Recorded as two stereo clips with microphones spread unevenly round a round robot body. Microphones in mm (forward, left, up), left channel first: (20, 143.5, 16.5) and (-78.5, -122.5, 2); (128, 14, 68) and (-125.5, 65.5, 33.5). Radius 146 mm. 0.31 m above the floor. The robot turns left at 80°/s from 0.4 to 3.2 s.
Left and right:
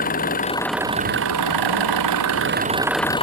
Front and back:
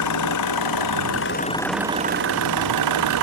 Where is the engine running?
5° left; by 3.2 s 140° left.